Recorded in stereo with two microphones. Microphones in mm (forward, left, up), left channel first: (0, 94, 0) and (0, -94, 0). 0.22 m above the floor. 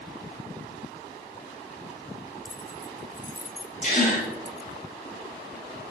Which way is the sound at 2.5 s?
20° left (ahead or behind).